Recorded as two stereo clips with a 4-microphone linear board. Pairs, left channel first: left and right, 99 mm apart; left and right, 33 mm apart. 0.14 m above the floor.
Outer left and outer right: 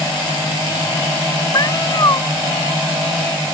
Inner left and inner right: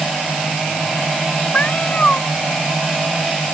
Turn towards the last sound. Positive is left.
turn(degrees=40)  # may be behind; listen again after turning